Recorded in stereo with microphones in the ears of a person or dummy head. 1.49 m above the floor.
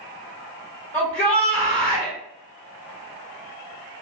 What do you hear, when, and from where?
0.9 s a shout: 15° left (ahead or behind), 2.0 m